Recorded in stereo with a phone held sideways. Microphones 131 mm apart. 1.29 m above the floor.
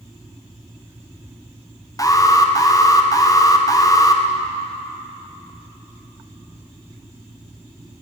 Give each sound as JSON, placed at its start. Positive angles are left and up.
{"t": 2.0, "sound": "an alarm", "side_deg": 25, "distance_m": 0.7}